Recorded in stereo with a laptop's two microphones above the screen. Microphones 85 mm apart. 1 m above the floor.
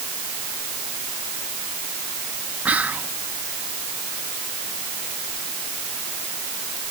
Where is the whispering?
15° right (ahead or behind), 0.8 m.